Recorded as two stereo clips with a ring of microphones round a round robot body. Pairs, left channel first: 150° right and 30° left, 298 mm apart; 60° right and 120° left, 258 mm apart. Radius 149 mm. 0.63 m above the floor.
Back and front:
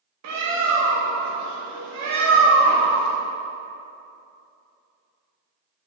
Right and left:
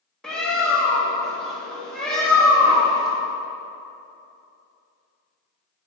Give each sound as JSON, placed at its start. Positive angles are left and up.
{"t": 0.2, "sound": "a bird", "azimuth_deg": 30, "distance_m": 0.8}